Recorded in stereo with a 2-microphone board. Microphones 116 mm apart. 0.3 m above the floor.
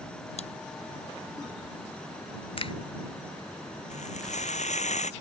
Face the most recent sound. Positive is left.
turn(degrees=75)  # may be behind; listen again after turning